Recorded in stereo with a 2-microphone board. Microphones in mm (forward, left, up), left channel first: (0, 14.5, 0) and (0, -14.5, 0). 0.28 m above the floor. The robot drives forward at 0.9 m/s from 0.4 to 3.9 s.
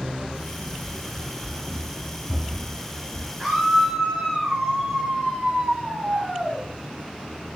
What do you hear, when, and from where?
0.8 s running footsteps: 25° right (ahead or behind), 0.7 m
3.4 s a scream: 15° left (ahead or behind), 3.5 m